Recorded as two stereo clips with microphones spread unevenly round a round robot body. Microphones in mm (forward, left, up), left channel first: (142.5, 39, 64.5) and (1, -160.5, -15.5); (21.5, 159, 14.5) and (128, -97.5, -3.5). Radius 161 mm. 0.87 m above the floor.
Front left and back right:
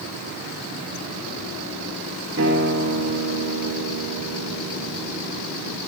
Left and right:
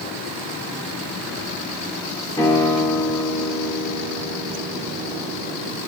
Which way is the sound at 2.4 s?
170° right.